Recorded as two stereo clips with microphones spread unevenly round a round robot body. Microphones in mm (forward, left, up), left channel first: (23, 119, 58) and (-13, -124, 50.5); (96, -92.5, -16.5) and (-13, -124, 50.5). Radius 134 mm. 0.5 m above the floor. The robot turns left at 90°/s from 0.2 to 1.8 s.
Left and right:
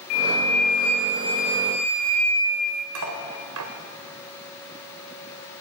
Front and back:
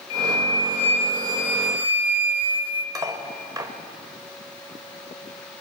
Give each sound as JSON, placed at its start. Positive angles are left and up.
{"t": 0.1, "sound": "a flute", "azimuth_deg": 65, "distance_m": 1.4}
{"t": 3.0, "sound": "cutlery clinking", "azimuth_deg": -95, "distance_m": 1.4}